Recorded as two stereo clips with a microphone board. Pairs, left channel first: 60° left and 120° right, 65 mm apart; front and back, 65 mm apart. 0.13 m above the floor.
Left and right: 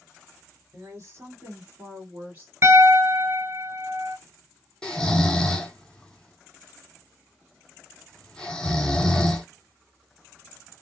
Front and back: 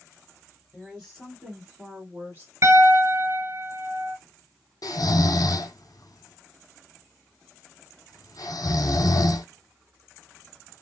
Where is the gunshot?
No gunshot in this recording.